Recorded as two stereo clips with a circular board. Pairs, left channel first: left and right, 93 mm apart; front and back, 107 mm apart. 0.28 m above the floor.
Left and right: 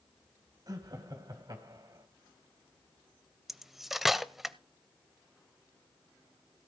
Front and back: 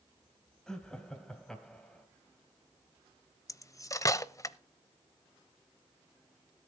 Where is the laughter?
80° right, 1.7 m.